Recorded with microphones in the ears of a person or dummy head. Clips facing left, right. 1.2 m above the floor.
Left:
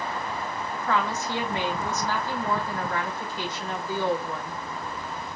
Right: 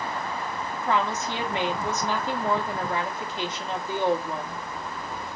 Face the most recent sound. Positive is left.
turn(degrees=-15)  # may be behind; listen again after turning